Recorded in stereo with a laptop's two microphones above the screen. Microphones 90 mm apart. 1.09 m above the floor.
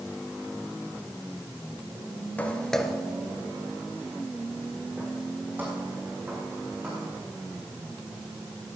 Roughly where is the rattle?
I don't hear a rattle.